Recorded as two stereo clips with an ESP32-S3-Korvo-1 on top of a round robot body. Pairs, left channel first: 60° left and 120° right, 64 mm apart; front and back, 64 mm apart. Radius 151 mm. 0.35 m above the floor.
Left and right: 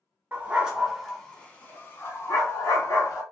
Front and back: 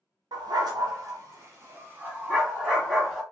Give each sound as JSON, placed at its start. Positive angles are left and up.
{"t": 0.3, "sound": "a dog barking", "azimuth_deg": 175, "distance_m": 1.0}